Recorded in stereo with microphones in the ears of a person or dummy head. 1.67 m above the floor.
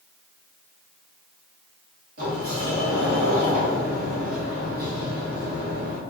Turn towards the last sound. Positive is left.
turn(degrees=-50)  # may be behind; listen again after turning